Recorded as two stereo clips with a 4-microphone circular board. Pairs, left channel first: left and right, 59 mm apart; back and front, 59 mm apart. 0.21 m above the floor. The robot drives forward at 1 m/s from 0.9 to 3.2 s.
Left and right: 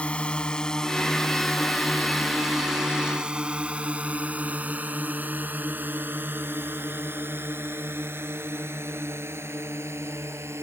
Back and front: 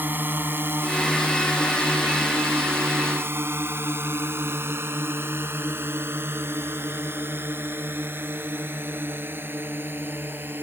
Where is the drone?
30° left; by 10.6 s 50° right.